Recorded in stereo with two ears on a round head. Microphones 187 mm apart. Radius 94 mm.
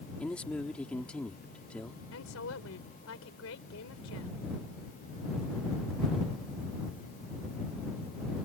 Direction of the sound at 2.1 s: 75° left (ahead or behind).